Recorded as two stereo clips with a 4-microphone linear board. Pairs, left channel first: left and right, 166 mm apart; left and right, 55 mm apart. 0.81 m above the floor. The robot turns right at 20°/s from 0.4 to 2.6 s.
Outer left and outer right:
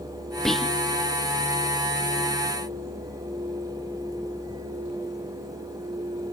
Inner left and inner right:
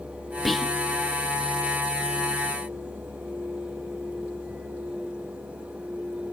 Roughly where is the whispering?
Centre.